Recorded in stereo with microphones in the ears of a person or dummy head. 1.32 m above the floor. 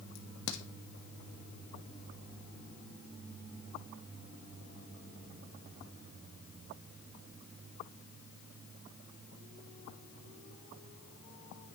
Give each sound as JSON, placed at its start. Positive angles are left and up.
{"t": 0.1, "sound": "a crack", "side_deg": 55, "distance_m": 1.3}